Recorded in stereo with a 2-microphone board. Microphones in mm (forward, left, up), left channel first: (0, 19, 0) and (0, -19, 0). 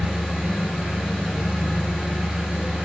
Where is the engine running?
25° right (ahead or behind), 1.5 m.